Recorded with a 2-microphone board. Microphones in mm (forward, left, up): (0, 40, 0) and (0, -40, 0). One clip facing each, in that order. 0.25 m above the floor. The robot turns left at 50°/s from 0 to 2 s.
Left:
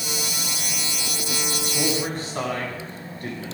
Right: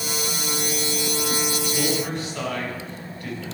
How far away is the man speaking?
About 1.6 m.